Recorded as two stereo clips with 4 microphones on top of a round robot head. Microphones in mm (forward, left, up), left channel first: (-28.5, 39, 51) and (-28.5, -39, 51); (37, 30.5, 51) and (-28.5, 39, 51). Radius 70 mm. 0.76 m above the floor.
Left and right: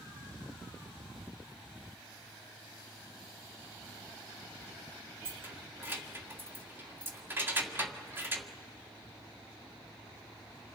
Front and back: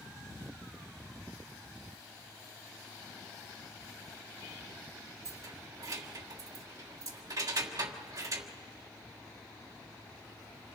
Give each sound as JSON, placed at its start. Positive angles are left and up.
{"t": 5.2, "sound": "keys jangling", "azimuth_deg": -150, "distance_m": 1.4}